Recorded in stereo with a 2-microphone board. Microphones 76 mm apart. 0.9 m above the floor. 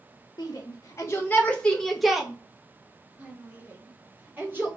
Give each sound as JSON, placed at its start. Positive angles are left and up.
{"t": 0.4, "sound": "a shout", "side_deg": 55, "distance_m": 0.9}